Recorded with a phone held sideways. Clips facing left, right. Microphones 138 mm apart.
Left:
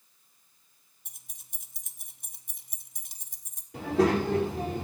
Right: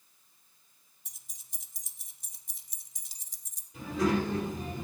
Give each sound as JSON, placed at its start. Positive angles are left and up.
{"t": 1.1, "sound": "keys jangling", "side_deg": 50, "distance_m": 0.9}
{"t": 3.7, "sound": "a child speaking", "side_deg": 60, "distance_m": 1.6}